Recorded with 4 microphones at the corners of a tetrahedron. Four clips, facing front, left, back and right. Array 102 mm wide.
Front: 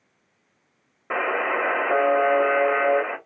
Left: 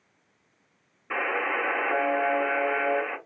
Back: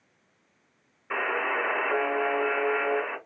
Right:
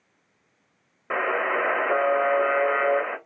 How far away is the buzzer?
About 1.5 m.